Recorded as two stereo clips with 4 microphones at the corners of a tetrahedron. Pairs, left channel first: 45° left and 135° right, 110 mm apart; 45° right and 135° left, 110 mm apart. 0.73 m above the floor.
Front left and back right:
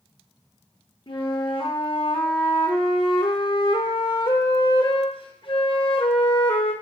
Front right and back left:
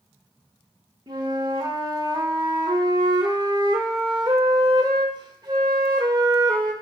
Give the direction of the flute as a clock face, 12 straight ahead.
9 o'clock.